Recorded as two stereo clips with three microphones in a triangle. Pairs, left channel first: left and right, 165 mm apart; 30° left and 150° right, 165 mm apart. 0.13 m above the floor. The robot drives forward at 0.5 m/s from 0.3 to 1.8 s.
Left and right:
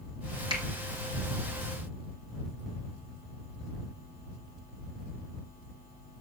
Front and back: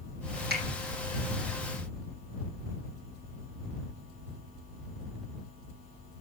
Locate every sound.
0.5 s a finger snap: 150° right, 4.5 m